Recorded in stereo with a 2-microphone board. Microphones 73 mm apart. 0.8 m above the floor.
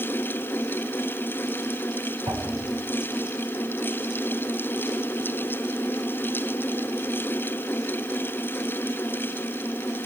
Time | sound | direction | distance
2.3 | a whoosh | 60° right (ahead or behind) | 7 m